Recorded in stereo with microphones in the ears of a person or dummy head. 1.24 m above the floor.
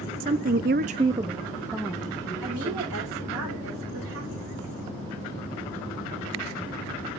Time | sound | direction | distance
0.2 | a woman speaking | 35° right (ahead or behind) | 0.8 m
2.4 | a woman speaking | 85° right | 4.5 m